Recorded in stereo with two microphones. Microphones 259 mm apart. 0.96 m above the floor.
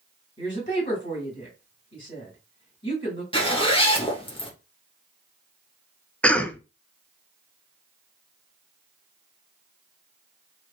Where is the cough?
5° left (ahead or behind), 0.5 m.